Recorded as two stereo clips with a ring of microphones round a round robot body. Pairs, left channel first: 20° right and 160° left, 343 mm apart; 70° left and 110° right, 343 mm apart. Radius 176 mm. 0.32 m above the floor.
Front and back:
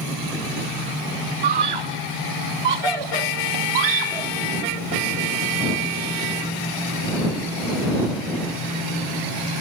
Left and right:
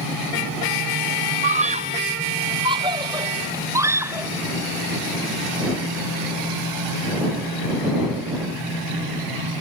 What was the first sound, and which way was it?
A scream, 175° left.